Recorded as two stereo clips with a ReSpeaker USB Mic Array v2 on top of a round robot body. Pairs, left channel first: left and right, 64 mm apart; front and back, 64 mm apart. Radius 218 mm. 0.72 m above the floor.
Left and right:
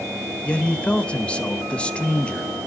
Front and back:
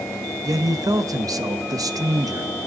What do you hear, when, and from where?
0.4 s a man speaking: 160° left, 1.1 m